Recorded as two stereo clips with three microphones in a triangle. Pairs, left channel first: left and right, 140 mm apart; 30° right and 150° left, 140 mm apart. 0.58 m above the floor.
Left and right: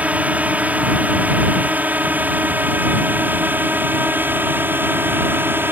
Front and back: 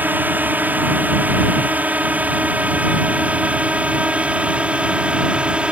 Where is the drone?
155° right; by 5.7 s 140° right.